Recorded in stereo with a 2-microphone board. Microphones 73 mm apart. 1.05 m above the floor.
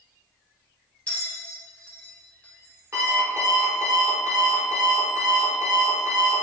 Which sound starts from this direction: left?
A bell, at 1.1 s.